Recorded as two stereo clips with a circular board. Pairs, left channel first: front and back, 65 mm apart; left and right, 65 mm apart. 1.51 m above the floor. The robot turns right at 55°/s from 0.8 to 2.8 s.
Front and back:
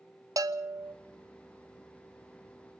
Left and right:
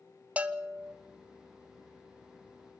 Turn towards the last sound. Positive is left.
turn(degrees=-50)